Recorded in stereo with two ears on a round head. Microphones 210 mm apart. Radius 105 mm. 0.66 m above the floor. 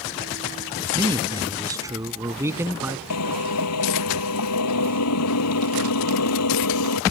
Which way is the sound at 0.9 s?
20° right (ahead or behind).